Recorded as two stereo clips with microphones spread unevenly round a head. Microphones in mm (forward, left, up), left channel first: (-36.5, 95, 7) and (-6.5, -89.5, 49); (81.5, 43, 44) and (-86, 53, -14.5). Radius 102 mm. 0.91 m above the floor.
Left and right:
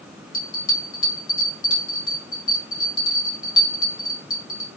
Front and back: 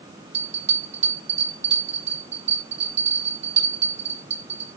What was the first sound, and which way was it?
A bell, 135° left.